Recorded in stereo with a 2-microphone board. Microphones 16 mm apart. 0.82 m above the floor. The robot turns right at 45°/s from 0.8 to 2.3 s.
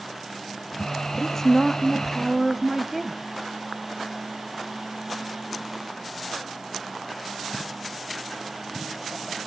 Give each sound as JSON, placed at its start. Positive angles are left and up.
{"t": 1.2, "sound": "a woman speaking", "azimuth_deg": 150, "distance_m": 0.8}